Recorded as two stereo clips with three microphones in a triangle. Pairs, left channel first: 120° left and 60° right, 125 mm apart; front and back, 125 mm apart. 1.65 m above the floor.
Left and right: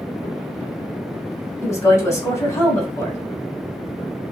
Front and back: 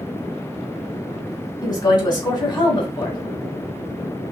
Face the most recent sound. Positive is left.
turn(degrees=55)